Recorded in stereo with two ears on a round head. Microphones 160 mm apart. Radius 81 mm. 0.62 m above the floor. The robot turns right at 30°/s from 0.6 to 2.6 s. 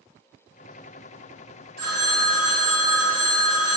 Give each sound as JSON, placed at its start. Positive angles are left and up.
{"t": 1.8, "sound": "a phone ringing", "side_deg": -70, "distance_m": 1.7}